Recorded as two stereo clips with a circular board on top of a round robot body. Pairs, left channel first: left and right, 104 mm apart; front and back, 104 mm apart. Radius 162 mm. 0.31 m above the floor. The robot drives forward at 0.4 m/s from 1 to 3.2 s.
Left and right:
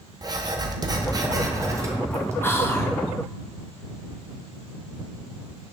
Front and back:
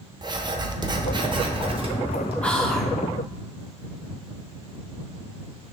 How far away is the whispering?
About 1.4 m.